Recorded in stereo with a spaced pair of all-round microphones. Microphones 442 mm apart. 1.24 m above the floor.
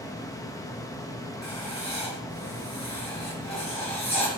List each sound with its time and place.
0.0 s a fan: 10° left (ahead or behind), 1.4 m
1.4 s writing: 35° left (ahead or behind), 4.5 m